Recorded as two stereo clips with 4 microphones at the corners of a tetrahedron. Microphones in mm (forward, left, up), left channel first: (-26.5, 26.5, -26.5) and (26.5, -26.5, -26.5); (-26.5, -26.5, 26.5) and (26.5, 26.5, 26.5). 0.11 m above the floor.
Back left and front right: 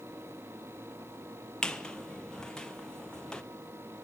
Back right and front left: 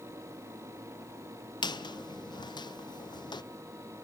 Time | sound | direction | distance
1.6 | a squeak | 145° right | 0.5 m